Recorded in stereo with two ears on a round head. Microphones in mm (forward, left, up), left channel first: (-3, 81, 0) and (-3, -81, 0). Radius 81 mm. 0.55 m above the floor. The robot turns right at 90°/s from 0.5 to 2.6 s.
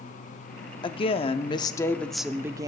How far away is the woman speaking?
About 0.7 m.